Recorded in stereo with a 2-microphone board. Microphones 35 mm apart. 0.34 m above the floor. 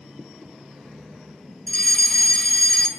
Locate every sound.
1.7 s a fire alarm: 30° left (ahead or behind), 2 m